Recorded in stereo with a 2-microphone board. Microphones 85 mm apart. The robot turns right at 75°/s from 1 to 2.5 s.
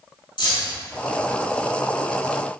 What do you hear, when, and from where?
0.4 s keys jangling: 65° left (ahead or behind), 3 m